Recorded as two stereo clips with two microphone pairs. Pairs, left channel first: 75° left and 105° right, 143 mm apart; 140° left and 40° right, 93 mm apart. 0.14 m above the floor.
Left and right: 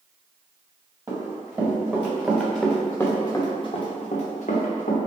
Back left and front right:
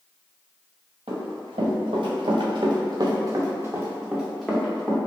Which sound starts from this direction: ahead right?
Running footsteps, at 1.1 s.